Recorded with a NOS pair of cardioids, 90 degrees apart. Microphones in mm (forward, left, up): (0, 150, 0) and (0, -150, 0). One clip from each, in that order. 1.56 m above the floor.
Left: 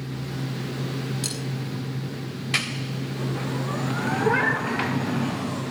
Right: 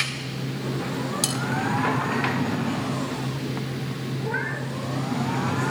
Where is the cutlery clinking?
65° right, 7.5 m.